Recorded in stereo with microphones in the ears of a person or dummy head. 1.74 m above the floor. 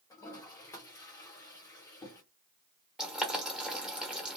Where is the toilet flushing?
15° left (ahead or behind), 0.9 m.